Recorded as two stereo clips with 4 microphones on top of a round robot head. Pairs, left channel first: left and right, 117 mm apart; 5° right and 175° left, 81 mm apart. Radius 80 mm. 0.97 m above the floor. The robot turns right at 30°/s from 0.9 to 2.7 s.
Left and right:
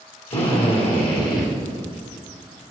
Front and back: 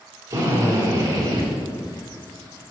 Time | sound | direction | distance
0.3 | a drill | 125° left | 3 m